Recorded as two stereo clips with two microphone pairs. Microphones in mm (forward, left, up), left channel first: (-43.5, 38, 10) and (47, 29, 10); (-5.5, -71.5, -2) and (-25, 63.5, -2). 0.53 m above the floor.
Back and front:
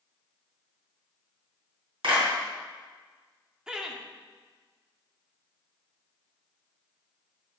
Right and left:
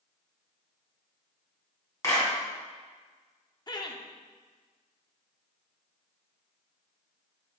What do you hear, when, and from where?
2.0 s a clap: 15° right, 3 m
3.7 s laughter: 75° right, 0.8 m